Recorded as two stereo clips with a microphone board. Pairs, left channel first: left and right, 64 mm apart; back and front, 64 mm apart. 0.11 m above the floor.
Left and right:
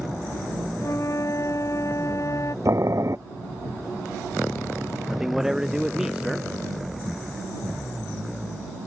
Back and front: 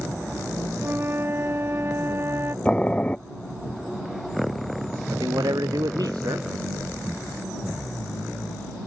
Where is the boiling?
110° right.